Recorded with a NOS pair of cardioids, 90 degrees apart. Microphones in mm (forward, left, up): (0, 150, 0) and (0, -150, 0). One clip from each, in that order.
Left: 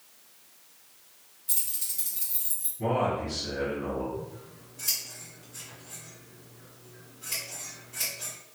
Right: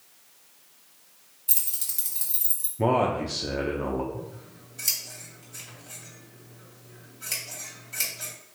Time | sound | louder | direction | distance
1.5 | keys jangling | right 2 dB | 45° right | 1.3 m
2.8 | a man speaking | right 4 dB | 70° right | 0.6 m
4.1 | scissors | left 1 dB | 60° right | 1.8 m